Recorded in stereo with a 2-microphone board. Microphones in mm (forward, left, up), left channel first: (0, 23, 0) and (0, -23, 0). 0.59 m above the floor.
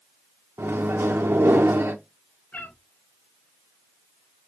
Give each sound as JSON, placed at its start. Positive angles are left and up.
{"t": 0.6, "sound": "a microwave", "side_deg": -55, "distance_m": 0.9}
{"t": 2.5, "sound": "a cat meowing", "side_deg": 35, "distance_m": 2.5}